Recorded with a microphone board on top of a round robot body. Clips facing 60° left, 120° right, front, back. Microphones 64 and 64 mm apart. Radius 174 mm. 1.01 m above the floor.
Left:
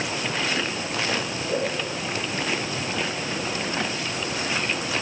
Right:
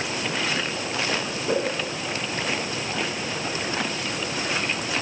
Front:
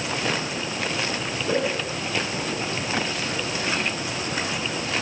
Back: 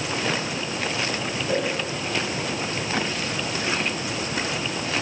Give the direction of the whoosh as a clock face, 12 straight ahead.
2 o'clock.